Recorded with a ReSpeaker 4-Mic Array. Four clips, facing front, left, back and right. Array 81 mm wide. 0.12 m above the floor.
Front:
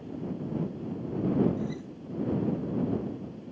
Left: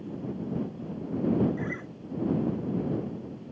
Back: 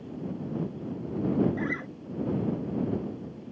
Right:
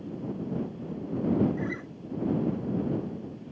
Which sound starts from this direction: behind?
A guitar, at 1.6 s.